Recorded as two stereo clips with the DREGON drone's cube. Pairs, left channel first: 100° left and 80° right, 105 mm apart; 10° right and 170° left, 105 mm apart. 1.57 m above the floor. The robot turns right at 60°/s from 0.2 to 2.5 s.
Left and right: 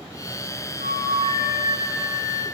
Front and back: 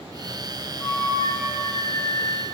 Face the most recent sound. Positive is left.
turn(degrees=25)